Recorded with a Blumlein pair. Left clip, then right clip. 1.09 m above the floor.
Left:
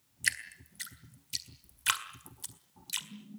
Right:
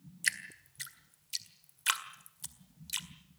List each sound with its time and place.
0.2 s dripping: straight ahead, 1.7 m